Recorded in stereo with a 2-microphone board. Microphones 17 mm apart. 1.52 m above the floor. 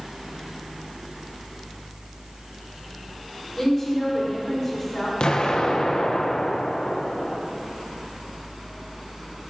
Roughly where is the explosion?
Left.